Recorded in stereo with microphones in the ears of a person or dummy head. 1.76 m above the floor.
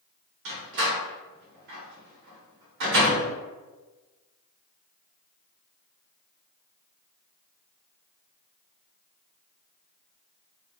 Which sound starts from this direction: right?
A door slam, at 0.5 s.